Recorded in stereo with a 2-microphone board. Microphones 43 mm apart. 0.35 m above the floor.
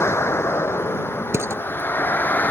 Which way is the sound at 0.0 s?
75° left (ahead or behind).